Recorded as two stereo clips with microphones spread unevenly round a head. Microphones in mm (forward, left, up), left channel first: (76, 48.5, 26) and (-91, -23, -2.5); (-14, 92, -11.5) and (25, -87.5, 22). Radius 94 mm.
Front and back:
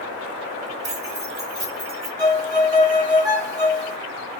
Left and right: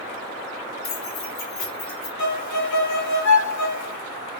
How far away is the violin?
About 2.5 m.